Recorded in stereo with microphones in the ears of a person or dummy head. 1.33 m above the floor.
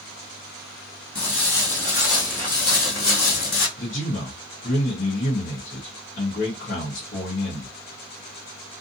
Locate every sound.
1.1 s footsteps: 5° left (ahead or behind), 2 m; by 3.7 s 45° left (ahead or behind), 2 m
3.8 s a man speaking: 50° left (ahead or behind), 1.0 m